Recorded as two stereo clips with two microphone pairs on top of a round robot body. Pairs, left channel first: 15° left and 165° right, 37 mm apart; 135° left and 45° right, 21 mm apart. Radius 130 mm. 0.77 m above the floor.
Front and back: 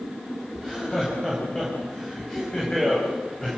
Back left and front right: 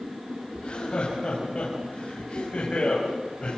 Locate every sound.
0.6 s laughter: 90° left, 5.5 m